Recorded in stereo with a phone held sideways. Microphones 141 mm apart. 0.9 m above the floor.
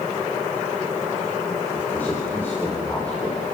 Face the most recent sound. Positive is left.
turn(degrees=10)  # may be behind; listen again after turning